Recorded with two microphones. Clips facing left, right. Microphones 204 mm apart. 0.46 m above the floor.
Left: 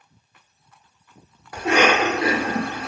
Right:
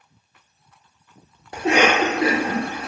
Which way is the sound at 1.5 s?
25° right (ahead or behind).